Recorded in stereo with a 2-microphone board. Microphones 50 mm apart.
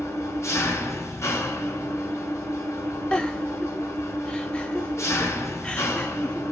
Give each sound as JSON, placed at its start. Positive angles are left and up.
{"t": 0.0, "sound": "an engine running", "side_deg": 80, "distance_m": 1.2}
{"t": 3.1, "sound": "a giggle", "side_deg": 20, "distance_m": 0.7}